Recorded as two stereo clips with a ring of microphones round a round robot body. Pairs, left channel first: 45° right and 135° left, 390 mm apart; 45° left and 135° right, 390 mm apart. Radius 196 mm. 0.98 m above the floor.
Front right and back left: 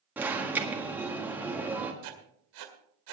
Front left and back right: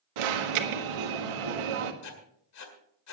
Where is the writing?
95° left, 1.9 m.